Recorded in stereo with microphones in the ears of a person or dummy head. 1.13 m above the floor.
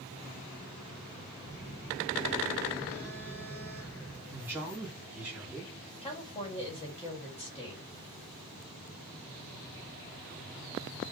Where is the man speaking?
15° right (ahead or behind), 3 m.